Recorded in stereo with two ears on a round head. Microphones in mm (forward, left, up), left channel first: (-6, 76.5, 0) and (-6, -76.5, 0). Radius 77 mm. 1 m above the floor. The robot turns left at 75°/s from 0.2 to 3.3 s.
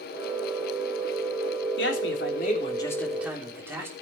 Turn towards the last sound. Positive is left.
turn(degrees=-15)